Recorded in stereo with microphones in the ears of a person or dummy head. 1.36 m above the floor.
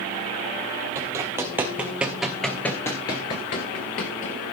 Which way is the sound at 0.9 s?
20° right (ahead or behind).